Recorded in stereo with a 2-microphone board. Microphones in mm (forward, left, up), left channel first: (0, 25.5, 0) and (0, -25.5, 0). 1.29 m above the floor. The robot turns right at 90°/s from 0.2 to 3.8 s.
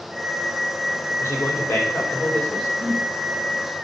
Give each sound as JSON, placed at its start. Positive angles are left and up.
{"t": 1.2, "sound": "a man speaking", "azimuth_deg": 55, "distance_m": 3.5}
{"t": 2.8, "sound": "a whoosh", "side_deg": -50, "distance_m": 3.5}